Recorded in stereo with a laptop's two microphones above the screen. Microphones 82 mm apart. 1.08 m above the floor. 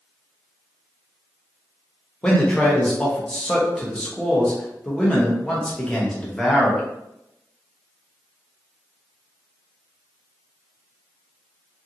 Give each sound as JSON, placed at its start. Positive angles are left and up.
{"t": 2.2, "sound": "a man speaking", "side_deg": 10, "distance_m": 0.7}